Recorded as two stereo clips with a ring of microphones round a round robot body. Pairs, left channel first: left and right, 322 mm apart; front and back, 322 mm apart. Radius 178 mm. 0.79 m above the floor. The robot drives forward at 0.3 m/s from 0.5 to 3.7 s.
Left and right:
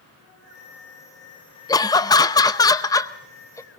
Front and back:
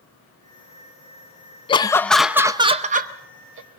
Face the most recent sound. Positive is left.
turn(degrees=165)